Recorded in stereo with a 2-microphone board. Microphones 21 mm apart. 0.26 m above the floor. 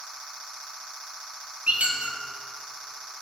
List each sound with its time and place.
1.7 s a squeak: 85° right, 0.9 m